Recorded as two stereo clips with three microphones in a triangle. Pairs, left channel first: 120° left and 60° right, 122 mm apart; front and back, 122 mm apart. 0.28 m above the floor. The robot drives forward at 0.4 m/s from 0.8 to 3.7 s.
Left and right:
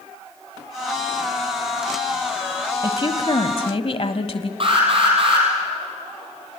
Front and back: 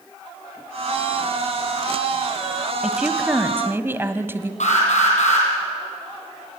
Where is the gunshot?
I don't hear a gunshot.